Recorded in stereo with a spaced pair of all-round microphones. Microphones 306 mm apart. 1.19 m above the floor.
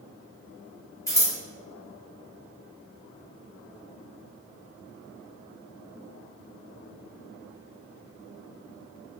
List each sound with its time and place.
1.1 s scissors: 10° left (ahead or behind), 0.7 m